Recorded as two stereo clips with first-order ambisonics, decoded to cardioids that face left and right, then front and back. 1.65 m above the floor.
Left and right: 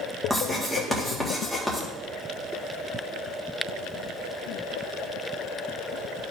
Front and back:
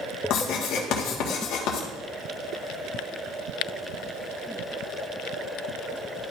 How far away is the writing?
About 1.4 m.